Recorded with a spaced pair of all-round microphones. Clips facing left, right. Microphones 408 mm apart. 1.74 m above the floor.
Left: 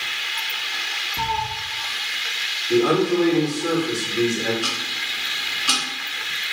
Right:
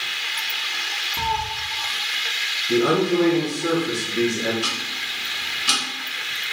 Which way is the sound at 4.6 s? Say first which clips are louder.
Left 1 dB; 35° right (ahead or behind).